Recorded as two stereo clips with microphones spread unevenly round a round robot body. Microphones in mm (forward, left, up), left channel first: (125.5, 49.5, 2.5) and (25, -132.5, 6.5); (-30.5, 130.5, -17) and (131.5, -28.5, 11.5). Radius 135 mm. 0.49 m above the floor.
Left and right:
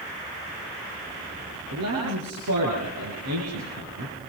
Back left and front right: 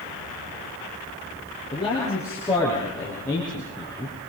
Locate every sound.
1.7 s a man speaking: 145° right, 7.5 m; by 4.2 s 135° right, 6.5 m